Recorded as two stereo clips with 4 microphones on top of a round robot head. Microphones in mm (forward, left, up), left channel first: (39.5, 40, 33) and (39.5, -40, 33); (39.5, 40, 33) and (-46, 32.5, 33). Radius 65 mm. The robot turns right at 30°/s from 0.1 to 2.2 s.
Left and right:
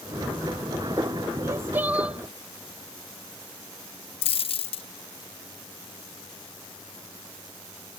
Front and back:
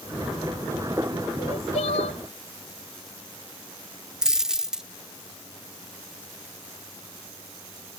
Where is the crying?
35° right; by 2.2 s 10° right.